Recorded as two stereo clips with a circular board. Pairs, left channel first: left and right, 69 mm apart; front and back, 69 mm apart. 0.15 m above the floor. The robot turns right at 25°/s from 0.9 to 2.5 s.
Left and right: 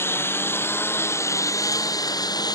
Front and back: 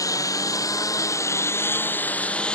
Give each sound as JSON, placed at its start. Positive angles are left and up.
{"t": 0.0, "sound": "a lawn mower", "azimuth_deg": 35}